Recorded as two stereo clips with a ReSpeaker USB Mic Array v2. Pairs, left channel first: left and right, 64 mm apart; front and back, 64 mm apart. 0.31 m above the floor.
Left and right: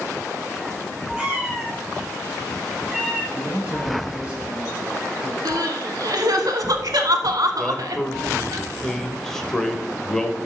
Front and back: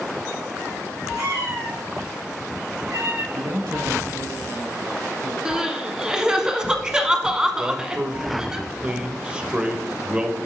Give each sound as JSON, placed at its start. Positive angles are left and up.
{"t": 1.2, "sound": "a cat meowing", "azimuth_deg": -165, "distance_m": 4.5}
{"t": 3.3, "sound": "a man speaking", "azimuth_deg": -165, "distance_m": 5.0}
{"t": 5.5, "sound": "crying", "azimuth_deg": -105, "distance_m": 0.9}
{"t": 7.6, "sound": "a man speaking", "azimuth_deg": 155, "distance_m": 0.9}